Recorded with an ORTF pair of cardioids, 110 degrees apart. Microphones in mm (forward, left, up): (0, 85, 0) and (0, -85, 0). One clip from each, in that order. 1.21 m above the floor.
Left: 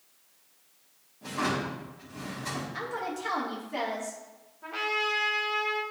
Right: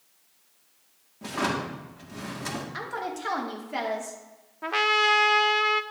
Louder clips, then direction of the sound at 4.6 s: Right 7 dB; 60° right.